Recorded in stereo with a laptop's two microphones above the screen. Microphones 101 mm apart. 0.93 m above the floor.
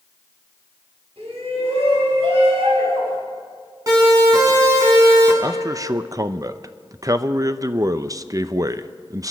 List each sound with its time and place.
1.2 s a shout: 75° right (ahead or behind), 6.5 m
3.9 s a siren: 35° right (ahead or behind), 7.5 m; by 5.3 s 25° right (ahead or behind), 7 m
5.4 s a man speaking: 35° right (ahead or behind), 0.6 m